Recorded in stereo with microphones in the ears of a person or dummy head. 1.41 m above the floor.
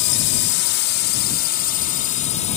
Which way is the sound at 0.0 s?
55° left (ahead or behind).